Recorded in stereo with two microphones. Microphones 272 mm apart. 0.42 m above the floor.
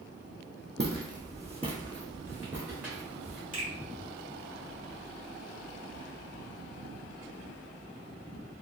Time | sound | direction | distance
0.8 | footsteps | 40° right (ahead or behind) | 0.8 m
3.5 | a finger snap | 30° right (ahead or behind) | 1.8 m